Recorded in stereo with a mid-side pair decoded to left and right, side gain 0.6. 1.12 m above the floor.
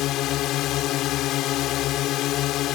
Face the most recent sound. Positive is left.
turn(degrees=65)